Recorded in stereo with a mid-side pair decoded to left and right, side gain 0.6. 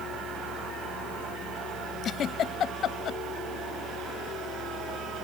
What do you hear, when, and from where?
0.0 s a fan: 60° right
2.0 s a giggle: 45° left